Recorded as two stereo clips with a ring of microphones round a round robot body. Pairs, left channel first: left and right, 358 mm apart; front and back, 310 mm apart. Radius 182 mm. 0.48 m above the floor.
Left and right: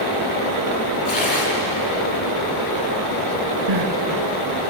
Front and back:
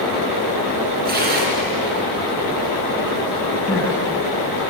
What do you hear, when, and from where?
1.1 s tearing paper: 120° left, 5 m
3.7 s crying: 80° right, 2 m